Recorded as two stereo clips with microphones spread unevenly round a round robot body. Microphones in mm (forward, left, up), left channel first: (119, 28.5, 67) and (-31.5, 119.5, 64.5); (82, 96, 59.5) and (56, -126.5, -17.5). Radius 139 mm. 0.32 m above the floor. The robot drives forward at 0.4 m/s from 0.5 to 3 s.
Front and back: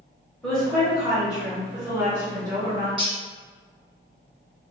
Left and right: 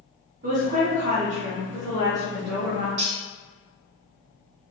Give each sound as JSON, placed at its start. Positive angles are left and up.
{"t": 0.4, "sound": "a woman speaking", "azimuth_deg": -115, "distance_m": 1.3}
{"t": 3.0, "sound": "cutlery clinking", "azimuth_deg": -150, "distance_m": 0.9}